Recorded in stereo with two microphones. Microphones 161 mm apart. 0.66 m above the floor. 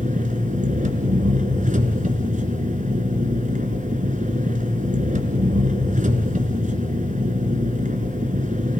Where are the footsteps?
No footsteps in this recording.